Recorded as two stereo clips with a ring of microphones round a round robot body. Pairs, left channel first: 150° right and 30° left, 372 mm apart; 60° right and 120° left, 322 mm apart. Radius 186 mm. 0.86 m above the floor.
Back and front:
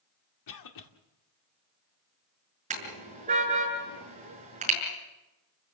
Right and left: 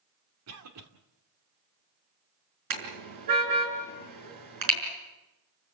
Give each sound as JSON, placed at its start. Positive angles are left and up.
{"t": 0.5, "sound": "a cough", "azimuth_deg": 170, "distance_m": 2.0}
{"t": 2.7, "sound": "a car horn", "azimuth_deg": 100, "distance_m": 6.0}